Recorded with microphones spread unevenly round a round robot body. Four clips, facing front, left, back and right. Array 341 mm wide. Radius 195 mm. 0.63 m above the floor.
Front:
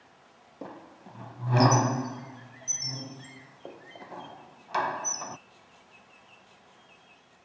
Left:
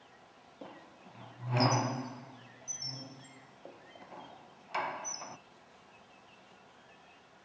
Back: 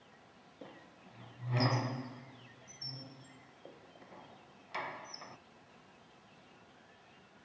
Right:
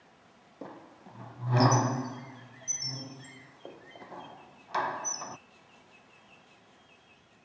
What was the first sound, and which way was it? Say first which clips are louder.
A squeak: right 5 dB, front 11 dB; straight ahead.